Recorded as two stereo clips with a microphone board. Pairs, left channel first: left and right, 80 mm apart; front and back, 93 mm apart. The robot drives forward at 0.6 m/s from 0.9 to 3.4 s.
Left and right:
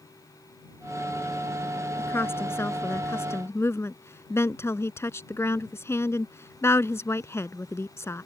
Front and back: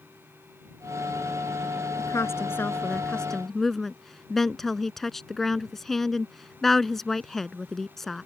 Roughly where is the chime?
No chime in this recording.